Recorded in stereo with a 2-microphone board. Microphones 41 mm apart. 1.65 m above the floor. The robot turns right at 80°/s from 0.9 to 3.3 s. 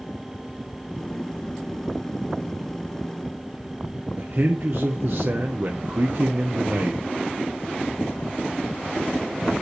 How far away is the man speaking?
About 0.9 m.